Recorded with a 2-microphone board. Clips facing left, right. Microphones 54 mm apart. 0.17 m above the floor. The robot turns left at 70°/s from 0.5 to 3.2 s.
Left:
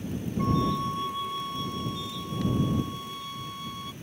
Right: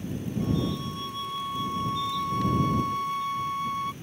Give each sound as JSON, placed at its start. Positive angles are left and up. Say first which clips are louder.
{"t": 0.4, "sound": "a flute", "louder": "left 3 dB", "azimuth_deg": 55}